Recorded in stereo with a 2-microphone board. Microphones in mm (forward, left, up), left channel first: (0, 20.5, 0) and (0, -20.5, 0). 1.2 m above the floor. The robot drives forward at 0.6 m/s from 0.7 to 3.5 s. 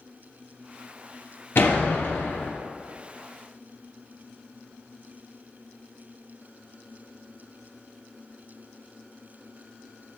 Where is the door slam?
65° left (ahead or behind), 1.7 m; by 2.5 s 75° left (ahead or behind), 1.6 m.